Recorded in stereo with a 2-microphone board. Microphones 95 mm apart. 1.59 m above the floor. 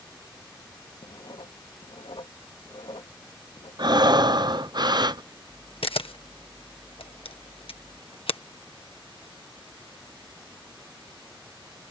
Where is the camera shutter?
85° left.